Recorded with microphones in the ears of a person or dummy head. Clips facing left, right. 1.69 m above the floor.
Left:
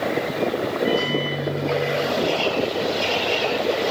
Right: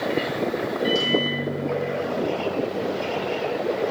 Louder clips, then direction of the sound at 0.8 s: Right 1 dB; 60° right (ahead or behind).